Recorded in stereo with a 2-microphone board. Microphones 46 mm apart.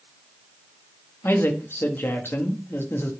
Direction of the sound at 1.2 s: 55° left (ahead or behind).